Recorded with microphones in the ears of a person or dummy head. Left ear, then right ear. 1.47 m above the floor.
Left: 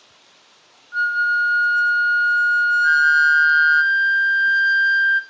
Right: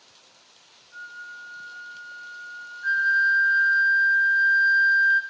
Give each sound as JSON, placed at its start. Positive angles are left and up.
{"t": 0.9, "sound": "a flute", "side_deg": 70, "distance_m": 0.5}
{"t": 2.8, "sound": "a flute", "side_deg": 10, "distance_m": 0.9}